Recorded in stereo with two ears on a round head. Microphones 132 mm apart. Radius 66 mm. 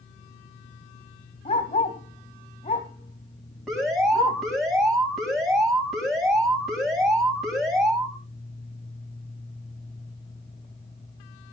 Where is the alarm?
Centre (ahead or behind), 6.5 m.